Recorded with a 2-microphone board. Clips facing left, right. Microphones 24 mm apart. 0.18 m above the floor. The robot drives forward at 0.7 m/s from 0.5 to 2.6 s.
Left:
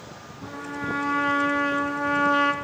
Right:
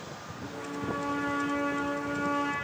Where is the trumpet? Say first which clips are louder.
Left 4 dB; 40° left (ahead or behind), 2.5 m; by 2.5 s 50° left (ahead or behind), 2 m.